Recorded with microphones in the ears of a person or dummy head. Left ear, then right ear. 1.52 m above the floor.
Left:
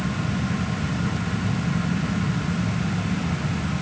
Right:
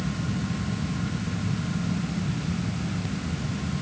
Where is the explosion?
I don't hear an explosion.